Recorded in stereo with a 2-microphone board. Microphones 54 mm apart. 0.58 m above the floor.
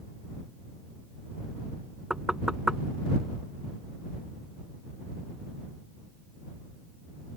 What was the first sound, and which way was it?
Knocking, 10° right (ahead or behind).